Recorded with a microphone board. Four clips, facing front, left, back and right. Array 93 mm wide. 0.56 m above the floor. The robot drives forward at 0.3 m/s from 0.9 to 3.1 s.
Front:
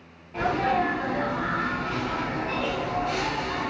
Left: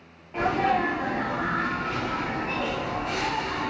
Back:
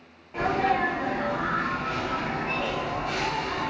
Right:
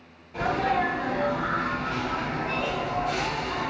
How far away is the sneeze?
About 1.0 m.